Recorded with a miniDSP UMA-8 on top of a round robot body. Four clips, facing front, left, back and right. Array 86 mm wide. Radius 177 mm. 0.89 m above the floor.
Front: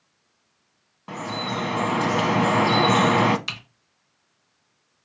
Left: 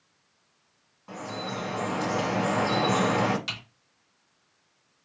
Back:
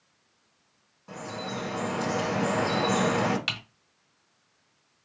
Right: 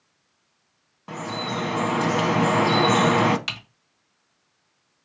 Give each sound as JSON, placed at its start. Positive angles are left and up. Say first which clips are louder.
{"t": 1.1, "sound": "dripping", "louder": "right 5 dB, front 6 dB", "azimuth_deg": -40, "distance_m": 0.8}
{"t": 3.5, "sound": "typing on a keyboard", "louder": "right 3 dB, back 1 dB", "azimuth_deg": -145, "distance_m": 2.0}